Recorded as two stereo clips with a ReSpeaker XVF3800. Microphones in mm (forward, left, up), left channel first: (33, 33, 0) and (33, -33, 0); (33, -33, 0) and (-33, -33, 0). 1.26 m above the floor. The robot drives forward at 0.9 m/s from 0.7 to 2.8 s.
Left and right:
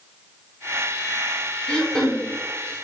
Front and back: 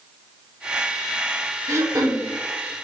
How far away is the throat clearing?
About 0.7 m.